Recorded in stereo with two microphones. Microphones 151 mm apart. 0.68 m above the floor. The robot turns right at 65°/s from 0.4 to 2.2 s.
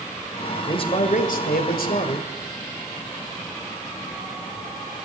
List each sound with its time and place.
0.7 s a man speaking: 30° left, 2.5 m; by 2.3 s 130° left, 2.5 m